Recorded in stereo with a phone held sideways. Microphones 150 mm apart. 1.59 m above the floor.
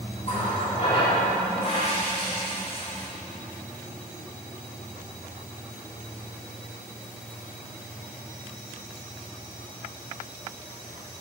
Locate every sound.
0.2 s a running tap: 40° left (ahead or behind), 1.7 m